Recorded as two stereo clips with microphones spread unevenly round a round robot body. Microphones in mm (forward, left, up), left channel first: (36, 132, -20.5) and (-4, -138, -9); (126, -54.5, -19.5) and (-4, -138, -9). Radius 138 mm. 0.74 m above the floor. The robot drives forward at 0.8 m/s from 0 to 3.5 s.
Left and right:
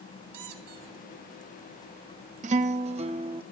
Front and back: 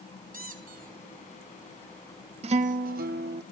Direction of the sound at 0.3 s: 120° right.